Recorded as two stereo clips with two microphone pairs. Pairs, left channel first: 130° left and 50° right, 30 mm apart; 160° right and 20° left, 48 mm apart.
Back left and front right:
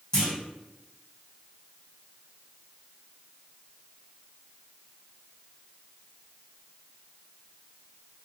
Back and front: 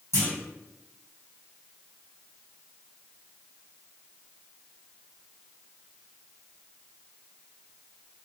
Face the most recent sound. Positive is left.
turn(degrees=-170)